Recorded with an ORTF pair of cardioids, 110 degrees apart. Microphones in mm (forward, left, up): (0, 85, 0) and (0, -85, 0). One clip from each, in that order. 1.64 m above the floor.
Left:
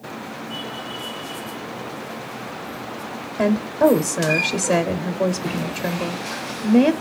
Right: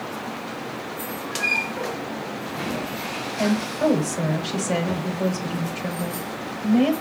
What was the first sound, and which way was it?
A woman speaking, 35° left.